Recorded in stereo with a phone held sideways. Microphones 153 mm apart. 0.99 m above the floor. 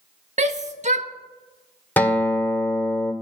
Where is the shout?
50° right (ahead or behind), 1.1 m.